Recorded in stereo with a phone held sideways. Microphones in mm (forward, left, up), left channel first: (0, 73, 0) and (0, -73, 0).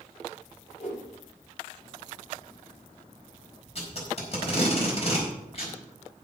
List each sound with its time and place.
0.8 s a whoosh: 50° left (ahead or behind), 7 m
3.8 s tape being pulled: 45° left (ahead or behind), 4.5 m